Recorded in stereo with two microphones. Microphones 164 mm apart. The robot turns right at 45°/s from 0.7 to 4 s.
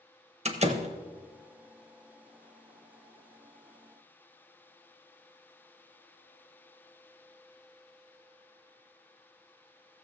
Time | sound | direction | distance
0.5 | a door slam | 40° right (ahead or behind) | 0.8 m